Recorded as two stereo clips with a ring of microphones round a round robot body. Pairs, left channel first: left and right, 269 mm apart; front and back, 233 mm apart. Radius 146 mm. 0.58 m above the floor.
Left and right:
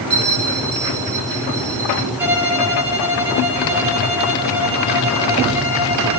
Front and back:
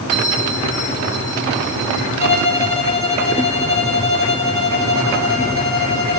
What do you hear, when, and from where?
0.1 s a bell: 150° right, 7.5 m
2.2 s a violin: 175° right, 4 m